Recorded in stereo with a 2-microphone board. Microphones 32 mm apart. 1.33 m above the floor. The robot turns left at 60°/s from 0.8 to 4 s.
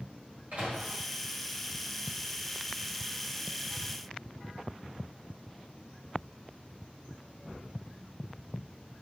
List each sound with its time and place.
0.5 s a microwave: 50° right (ahead or behind), 1.0 m